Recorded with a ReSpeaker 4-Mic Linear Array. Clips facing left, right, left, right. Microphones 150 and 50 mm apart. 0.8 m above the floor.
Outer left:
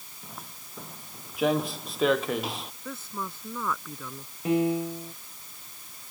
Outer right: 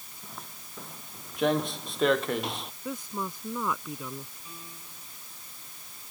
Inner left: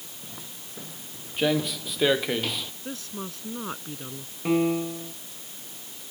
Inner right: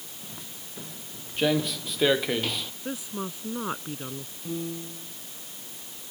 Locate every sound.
0.2 s footsteps: 5° left (ahead or behind); by 2.7 s centre (ahead or behind)
2.9 s a woman speaking: 15° right (ahead or behind)
4.5 s a piano: 75° left (ahead or behind)